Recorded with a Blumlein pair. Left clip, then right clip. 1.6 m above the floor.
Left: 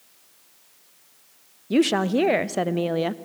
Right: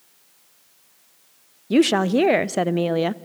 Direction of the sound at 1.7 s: 10° right.